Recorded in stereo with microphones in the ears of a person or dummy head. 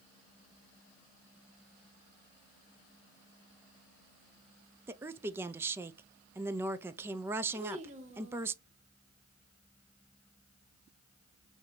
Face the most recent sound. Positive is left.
turn(degrees=-35)  # may be behind; listen again after turning